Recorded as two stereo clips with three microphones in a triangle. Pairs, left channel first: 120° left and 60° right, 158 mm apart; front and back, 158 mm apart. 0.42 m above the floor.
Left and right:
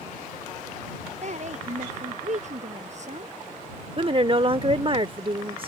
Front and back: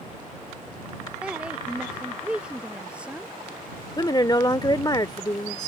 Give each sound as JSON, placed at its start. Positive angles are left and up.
{"t": 1.2, "sound": "a woman speaking", "azimuth_deg": -100}
{"t": 4.0, "sound": "a woman speaking", "azimuth_deg": -45}